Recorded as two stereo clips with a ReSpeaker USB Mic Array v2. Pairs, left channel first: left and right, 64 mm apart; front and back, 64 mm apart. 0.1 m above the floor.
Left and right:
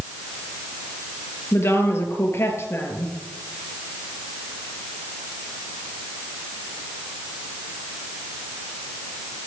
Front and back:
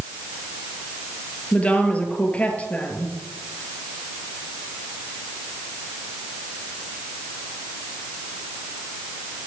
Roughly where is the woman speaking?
Ahead left.